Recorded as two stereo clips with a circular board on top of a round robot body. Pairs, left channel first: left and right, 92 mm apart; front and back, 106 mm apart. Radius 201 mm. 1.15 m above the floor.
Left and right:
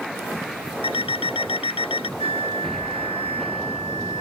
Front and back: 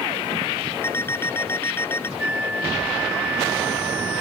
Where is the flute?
100° right.